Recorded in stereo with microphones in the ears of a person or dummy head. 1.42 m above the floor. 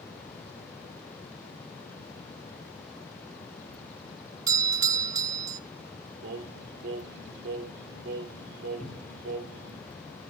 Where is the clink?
I don't hear a clink.